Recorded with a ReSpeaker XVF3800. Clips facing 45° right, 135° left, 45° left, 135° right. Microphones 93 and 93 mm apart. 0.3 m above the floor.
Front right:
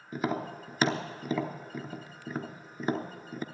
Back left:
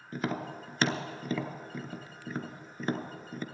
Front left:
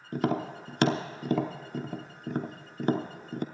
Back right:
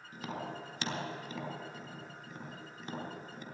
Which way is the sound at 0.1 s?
40° left.